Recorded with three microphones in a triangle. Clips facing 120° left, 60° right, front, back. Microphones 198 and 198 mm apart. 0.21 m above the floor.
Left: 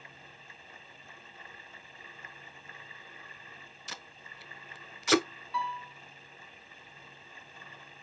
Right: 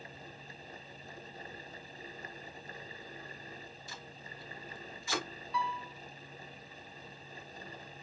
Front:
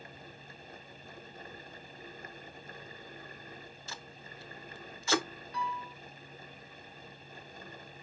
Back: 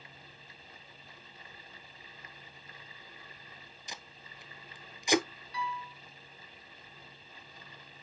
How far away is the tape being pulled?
About 0.5 m.